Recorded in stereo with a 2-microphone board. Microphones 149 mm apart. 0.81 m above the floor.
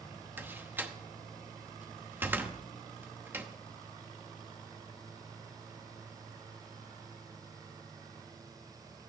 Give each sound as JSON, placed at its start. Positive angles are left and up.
{"t": 0.4, "sound": "a door slam", "side_deg": -15, "distance_m": 0.9}